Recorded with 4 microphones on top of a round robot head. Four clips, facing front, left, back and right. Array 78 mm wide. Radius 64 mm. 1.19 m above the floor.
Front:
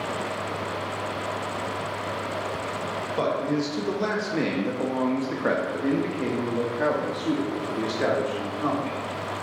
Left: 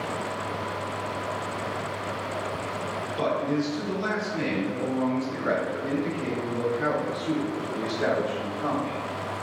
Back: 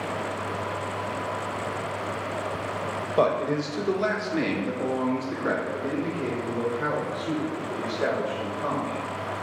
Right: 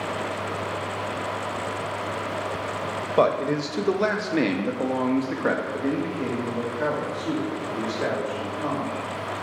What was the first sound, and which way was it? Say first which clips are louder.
A man speaking: right 5 dB, back 3 dB; 100° right.